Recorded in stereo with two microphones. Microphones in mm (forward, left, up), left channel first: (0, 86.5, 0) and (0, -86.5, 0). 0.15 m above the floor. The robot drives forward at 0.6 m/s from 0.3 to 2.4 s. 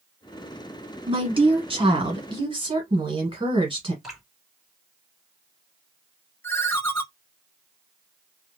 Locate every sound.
1.1 s a woman speaking: 30° right (ahead or behind), 1.3 m
4.0 s dripping: centre (ahead or behind), 2 m
6.4 s a ringtone: 15° left (ahead or behind), 0.5 m